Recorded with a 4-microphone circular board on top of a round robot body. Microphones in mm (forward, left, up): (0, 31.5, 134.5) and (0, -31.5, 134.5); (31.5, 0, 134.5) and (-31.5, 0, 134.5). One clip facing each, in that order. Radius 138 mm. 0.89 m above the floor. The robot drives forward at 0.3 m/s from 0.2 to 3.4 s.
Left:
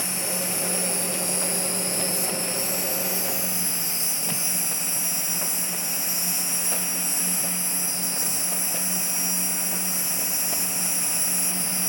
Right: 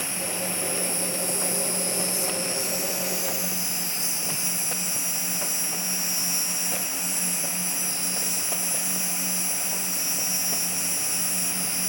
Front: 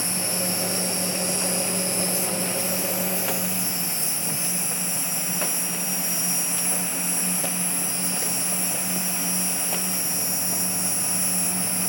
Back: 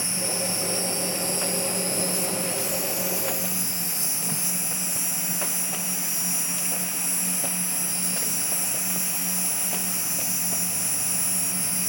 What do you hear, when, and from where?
0.0 s an insect: 105° left, 1.0 m; by 11.9 s 150° left, 1.5 m